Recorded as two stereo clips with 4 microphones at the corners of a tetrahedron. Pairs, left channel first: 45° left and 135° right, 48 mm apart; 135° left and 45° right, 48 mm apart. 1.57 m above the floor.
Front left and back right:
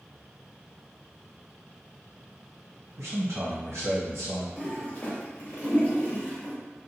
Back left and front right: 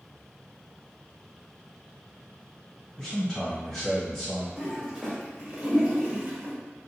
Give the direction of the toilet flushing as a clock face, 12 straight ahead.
11 o'clock.